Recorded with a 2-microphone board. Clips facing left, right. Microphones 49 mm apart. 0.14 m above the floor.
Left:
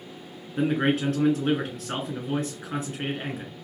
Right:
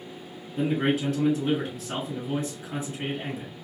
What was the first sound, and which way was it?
A man speaking, 45° left (ahead or behind).